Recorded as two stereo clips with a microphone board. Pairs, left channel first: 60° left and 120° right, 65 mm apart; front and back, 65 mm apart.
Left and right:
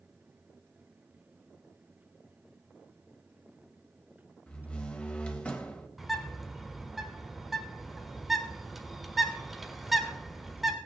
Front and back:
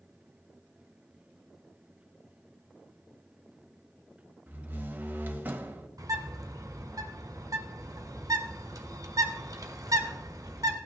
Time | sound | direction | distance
4.5 | a door slam | 125° left | 1.1 m
6.0 | a bird | 155° left | 1.3 m